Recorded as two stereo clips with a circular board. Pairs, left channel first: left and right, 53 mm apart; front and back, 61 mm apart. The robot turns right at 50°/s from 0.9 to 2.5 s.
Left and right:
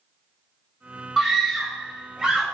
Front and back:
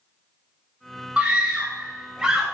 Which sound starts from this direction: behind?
A scream, at 1.2 s.